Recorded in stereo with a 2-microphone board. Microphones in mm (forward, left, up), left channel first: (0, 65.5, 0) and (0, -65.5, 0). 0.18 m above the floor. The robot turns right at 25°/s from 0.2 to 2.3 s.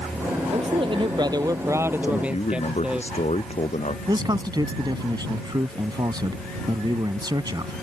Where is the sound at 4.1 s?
35° right (ahead or behind).